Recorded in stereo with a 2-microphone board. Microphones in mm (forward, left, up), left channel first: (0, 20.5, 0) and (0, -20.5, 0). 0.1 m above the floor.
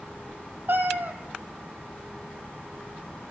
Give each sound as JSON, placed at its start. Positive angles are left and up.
{"t": 0.7, "sound": "a cat meowing", "side_deg": -55, "distance_m": 0.7}